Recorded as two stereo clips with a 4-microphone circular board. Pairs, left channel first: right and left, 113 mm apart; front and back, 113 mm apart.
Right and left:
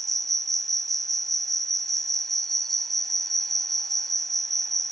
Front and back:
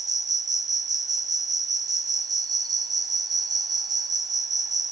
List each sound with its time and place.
0.0 s an insect: 175° right, 0.7 m